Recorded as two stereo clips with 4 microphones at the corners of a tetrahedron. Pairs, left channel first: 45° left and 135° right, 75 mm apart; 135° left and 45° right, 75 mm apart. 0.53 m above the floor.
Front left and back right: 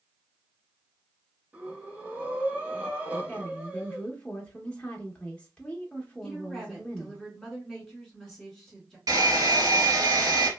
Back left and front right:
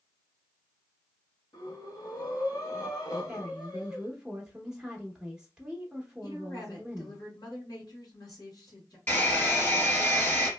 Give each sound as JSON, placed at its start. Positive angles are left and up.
{"t": 1.5, "sound": "breathing", "azimuth_deg": 155, "distance_m": 1.0}
{"t": 3.3, "sound": "a woman speaking", "azimuth_deg": 5, "distance_m": 0.6}
{"t": 6.2, "sound": "a woman speaking", "azimuth_deg": 130, "distance_m": 1.8}
{"t": 9.1, "sound": "a hair dryer", "azimuth_deg": -165, "distance_m": 1.5}